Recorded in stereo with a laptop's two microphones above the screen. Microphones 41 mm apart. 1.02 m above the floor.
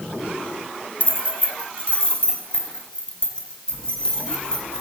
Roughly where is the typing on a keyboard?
I don't hear typing on a keyboard.